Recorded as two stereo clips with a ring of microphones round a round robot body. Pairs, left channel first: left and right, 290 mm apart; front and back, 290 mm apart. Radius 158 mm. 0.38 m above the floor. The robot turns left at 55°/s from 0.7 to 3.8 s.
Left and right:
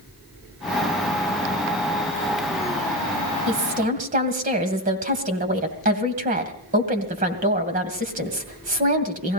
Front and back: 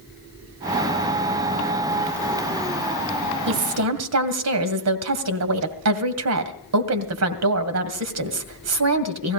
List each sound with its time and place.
3.5 s a woman speaking: 135° right, 2 m; by 9.4 s 155° right, 2 m